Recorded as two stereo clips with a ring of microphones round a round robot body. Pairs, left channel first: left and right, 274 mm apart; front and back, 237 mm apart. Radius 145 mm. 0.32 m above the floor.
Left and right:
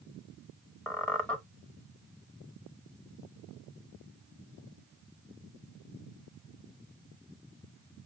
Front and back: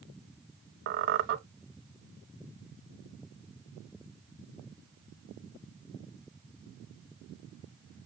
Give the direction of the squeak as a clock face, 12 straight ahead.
6 o'clock.